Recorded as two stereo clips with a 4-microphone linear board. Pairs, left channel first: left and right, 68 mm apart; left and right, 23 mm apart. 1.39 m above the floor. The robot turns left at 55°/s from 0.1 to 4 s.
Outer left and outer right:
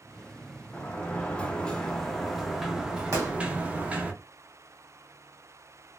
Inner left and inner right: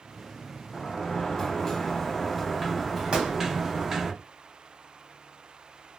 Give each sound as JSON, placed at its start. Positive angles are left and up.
{"t": 0.7, "sound": "a sliding door", "side_deg": 20, "distance_m": 0.6}
{"t": 3.1, "sound": "a gunshot", "side_deg": -50, "distance_m": 1.2}